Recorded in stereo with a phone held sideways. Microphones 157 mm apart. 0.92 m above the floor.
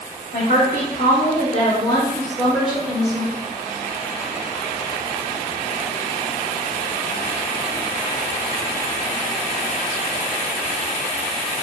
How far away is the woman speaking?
About 0.8 m.